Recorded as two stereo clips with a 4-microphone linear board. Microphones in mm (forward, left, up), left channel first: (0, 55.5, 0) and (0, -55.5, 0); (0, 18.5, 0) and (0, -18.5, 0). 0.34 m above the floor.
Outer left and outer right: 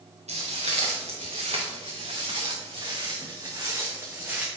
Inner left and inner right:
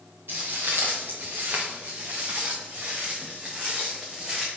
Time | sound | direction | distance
0.3 | footsteps | 75° right (ahead or behind) | 3 m